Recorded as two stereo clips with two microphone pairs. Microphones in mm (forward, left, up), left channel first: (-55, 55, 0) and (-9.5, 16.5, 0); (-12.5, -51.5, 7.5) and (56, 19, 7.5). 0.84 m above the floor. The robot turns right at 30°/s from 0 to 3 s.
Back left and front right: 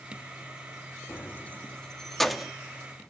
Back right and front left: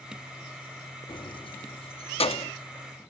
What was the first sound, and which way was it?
Keys jangling, 170° right.